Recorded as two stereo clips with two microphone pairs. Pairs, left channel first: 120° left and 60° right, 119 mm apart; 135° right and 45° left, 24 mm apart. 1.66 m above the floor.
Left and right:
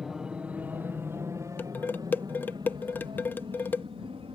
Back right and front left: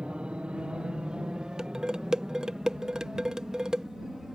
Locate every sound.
0.0 s an aircraft: 25° left; by 4.4 s 25° right
1.6 s dishes clattering: 65° left